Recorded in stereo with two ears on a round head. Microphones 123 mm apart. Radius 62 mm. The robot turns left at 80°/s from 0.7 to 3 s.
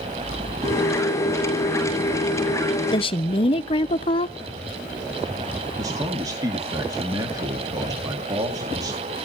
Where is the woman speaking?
35° left (ahead or behind), 0.7 m; by 4.4 s 40° left (ahead or behind), 0.7 m.